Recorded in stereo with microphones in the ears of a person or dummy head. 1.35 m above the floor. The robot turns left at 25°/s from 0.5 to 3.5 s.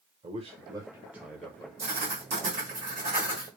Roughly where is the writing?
Behind right.